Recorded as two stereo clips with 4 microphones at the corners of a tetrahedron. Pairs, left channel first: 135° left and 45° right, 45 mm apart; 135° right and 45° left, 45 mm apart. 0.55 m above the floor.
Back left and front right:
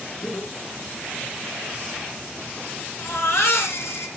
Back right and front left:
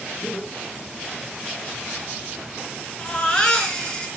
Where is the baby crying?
150° left, 3.5 m.